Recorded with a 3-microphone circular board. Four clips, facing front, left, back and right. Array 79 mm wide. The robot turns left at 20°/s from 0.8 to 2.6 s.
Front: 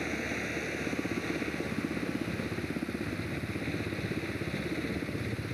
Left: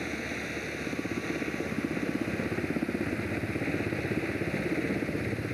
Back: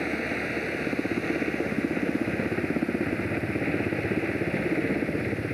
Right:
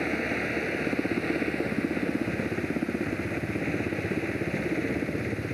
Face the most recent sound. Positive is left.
turn(degrees=-165)